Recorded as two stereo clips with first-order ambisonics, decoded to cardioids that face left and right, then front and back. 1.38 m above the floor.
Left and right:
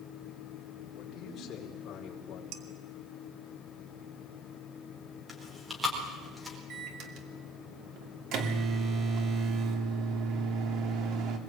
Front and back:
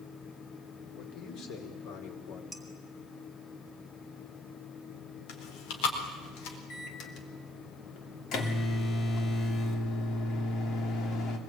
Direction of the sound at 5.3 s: 5° right.